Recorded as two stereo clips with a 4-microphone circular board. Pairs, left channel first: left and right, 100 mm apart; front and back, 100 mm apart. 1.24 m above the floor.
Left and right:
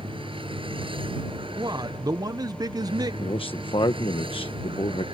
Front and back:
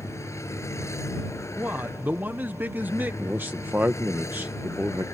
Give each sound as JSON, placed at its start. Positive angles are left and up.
{"t": 0.0, "sound": "a vehicle", "azimuth_deg": -60}
{"t": 1.6, "sound": "a man speaking", "azimuth_deg": -115}
{"t": 3.2, "sound": "a man speaking", "azimuth_deg": 110}